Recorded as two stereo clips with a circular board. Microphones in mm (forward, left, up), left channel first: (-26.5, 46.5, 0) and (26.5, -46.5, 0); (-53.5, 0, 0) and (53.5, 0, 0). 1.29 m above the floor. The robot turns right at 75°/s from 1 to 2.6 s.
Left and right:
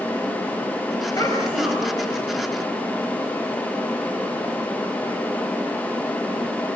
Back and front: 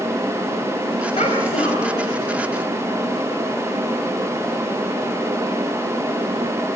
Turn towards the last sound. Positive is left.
turn(degrees=-80)